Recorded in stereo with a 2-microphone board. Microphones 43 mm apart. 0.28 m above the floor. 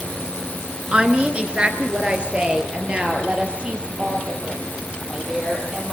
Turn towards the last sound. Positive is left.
turn(degrees=-25)  # may be behind; listen again after turning